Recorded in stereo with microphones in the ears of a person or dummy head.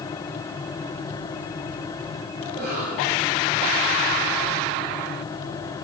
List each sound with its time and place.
2.4 s a cough: 40° right (ahead or behind), 8 m